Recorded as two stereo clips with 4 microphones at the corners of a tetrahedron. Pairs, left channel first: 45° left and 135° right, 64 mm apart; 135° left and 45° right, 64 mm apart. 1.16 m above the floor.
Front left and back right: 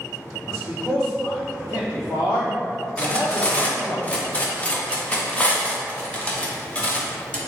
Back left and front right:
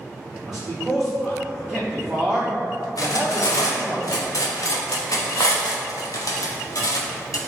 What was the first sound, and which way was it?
A man speaking, 40° left.